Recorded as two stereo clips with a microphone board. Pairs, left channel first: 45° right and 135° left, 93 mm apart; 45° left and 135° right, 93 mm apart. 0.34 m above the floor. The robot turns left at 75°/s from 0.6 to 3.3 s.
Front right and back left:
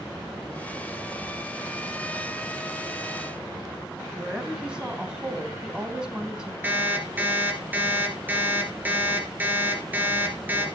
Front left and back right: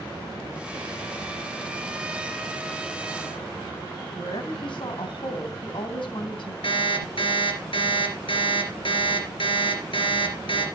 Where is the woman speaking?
55° left, 2.5 m.